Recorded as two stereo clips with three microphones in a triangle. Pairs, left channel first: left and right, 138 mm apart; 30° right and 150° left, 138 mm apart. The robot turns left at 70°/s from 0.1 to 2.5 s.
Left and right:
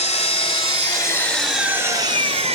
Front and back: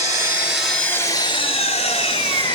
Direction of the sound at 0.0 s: 95° left.